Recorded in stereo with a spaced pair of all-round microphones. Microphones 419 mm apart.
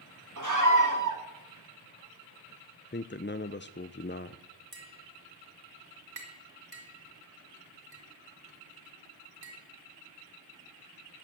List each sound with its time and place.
0.4 s a scream: 45° right (ahead or behind), 2.5 m
2.9 s a man speaking: 25° left (ahead or behind), 0.5 m
4.7 s tapping: 55° right (ahead or behind), 4 m